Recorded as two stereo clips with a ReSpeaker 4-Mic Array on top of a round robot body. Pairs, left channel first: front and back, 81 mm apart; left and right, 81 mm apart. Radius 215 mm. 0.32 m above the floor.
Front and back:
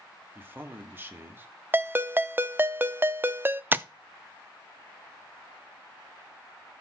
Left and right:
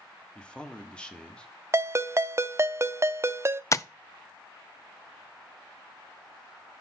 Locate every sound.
0.3 s a man speaking: 155° left, 1.4 m
1.7 s a ringtone: 130° right, 0.6 m
3.7 s tapping: 125° left, 0.6 m